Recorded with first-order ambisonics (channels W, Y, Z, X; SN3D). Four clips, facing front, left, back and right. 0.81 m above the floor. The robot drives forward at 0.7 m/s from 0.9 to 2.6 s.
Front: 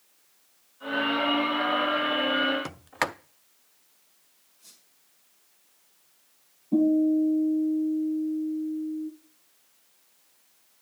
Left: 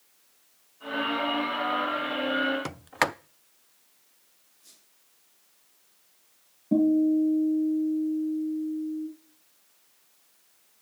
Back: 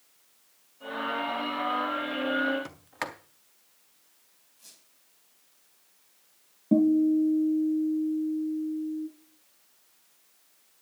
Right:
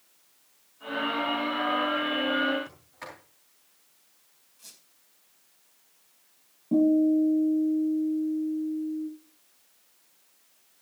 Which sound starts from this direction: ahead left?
A sliding door, at 2.6 s.